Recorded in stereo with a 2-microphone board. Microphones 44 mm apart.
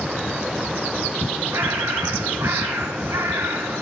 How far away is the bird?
About 2.5 m.